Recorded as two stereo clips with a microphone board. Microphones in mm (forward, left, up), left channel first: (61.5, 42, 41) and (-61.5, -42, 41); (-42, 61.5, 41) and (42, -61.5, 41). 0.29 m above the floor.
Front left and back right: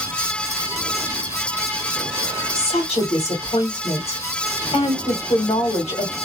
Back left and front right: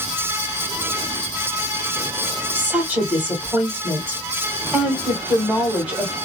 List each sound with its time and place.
2.5 s a woman speaking: 20° left, 1.5 m